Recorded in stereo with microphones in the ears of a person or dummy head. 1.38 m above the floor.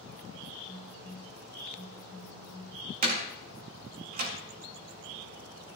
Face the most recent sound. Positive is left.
turn(degrees=-50)  # may be behind; listen again after turning